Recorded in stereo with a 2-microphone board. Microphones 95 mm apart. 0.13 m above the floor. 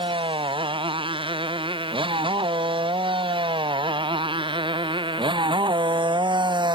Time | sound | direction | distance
0.0 | a motorcycle | 65° right (ahead or behind) | ?